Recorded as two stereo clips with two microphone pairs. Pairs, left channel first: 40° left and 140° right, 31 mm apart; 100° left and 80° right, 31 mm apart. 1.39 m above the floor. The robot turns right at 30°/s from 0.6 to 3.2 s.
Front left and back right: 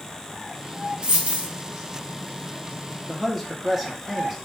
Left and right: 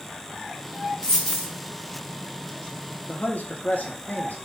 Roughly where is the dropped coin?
Behind.